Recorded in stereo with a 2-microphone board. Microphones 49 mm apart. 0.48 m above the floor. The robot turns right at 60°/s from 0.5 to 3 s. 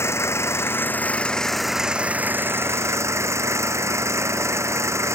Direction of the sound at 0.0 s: 110° left.